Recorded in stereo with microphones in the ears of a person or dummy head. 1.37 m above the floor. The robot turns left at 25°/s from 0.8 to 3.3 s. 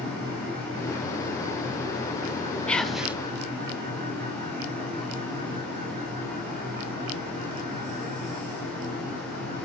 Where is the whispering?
5° left (ahead or behind), 0.7 m; by 3.2 s 5° right (ahead or behind), 0.7 m.